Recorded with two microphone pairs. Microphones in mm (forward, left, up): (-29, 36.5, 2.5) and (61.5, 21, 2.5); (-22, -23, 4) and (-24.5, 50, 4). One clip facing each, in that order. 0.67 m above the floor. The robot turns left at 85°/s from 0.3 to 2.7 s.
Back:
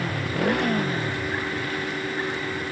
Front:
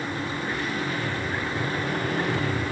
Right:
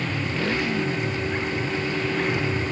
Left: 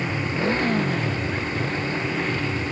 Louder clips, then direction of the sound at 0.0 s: Back 4 dB, left 2 dB; 170° left.